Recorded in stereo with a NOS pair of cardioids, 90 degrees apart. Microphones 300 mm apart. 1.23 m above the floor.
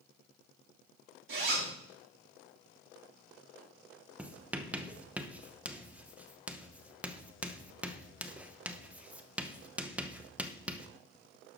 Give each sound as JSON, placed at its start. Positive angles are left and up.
{"t": 1.3, "sound": "a zipper", "azimuth_deg": -40, "distance_m": 3.0}
{"t": 4.2, "sound": "writing", "azimuth_deg": -5, "distance_m": 0.8}